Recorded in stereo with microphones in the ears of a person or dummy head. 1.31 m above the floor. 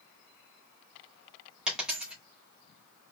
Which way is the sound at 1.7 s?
10° right (ahead or behind).